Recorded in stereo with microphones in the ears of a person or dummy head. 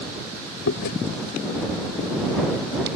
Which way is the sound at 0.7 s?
60° left (ahead or behind).